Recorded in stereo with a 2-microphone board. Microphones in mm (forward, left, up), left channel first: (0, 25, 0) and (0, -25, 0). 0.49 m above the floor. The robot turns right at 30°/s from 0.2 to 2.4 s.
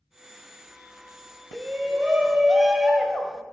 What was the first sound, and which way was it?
A shout, 35° right (ahead or behind).